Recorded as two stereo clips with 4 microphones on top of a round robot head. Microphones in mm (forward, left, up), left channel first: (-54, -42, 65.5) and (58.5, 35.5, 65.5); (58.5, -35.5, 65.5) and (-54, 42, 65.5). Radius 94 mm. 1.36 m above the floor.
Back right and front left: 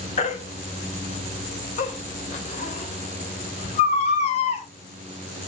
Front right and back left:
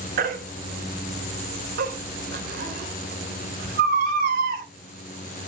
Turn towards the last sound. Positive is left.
turn(degrees=170)